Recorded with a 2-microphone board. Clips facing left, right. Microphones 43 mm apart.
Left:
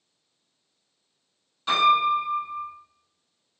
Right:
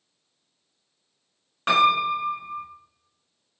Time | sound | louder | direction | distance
1.7 | a piano | even | 60° right (ahead or behind) | 1.0 m